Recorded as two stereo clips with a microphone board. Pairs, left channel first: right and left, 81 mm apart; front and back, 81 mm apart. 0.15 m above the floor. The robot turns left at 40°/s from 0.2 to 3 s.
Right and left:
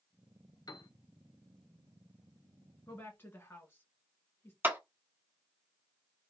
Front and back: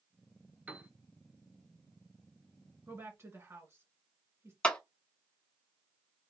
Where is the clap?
60° left, 1.0 m.